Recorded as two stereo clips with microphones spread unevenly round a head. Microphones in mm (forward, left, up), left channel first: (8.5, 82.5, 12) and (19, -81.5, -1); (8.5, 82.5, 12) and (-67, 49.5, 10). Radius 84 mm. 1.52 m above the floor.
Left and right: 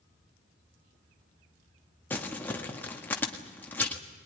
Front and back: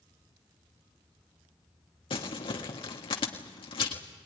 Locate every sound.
2.1 s crumpling: 15° left, 1.6 m